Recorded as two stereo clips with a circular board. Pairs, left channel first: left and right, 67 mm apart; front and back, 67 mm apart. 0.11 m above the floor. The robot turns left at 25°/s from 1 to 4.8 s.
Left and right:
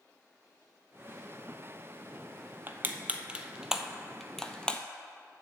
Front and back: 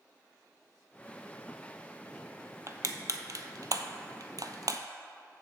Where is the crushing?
145° right, 0.6 m; by 4.8 s 160° left, 0.6 m.